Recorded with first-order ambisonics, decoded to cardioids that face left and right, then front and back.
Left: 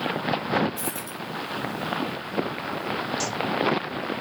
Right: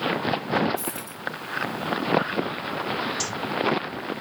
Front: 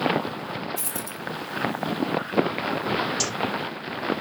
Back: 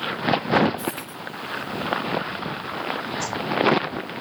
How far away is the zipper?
About 2.5 m.